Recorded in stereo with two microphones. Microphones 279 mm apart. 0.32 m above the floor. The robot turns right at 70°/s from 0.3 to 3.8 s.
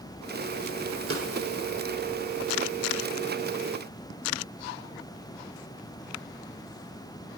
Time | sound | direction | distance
1.1 | a snare drum | 50° right (ahead or behind) | 1.2 m